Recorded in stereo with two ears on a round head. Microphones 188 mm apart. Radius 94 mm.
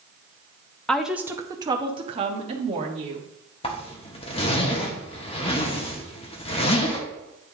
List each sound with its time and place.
0.9 s a woman speaking: 5° left (ahead or behind), 0.5 m; by 3.3 s 35° right (ahead or behind), 1.6 m
3.6 s a zipper: 30° left (ahead or behind), 1.0 m